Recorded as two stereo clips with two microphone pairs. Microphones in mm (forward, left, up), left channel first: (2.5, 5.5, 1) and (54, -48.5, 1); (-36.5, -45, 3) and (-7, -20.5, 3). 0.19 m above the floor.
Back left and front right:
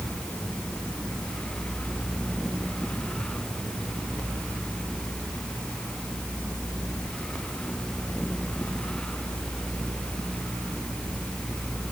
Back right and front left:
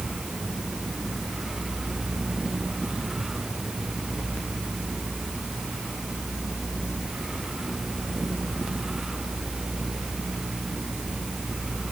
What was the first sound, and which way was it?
Only background noise.